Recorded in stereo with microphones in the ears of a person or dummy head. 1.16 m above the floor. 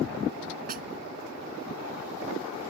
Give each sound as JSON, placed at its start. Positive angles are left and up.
{"t": 0.7, "sound": "a snare drum", "side_deg": -40}